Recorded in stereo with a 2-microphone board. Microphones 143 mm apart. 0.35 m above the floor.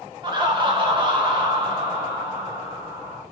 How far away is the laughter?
About 1.2 m.